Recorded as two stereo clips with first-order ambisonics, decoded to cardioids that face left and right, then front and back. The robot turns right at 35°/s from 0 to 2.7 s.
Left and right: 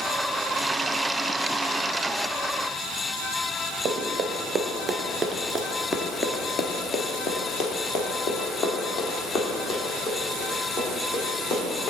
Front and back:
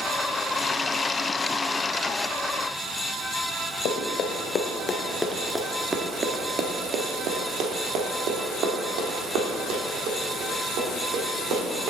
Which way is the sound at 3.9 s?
35° right.